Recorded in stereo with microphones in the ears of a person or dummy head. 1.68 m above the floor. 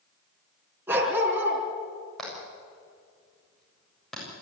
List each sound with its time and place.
0.9 s a dog barking: 15° right (ahead or behind), 4.5 m
2.2 s hammering: 5° left (ahead or behind), 7.5 m